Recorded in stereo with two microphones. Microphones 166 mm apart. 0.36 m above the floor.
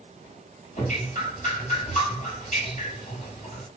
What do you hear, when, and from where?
0.8 s dripping: 50° left (ahead or behind), 3 m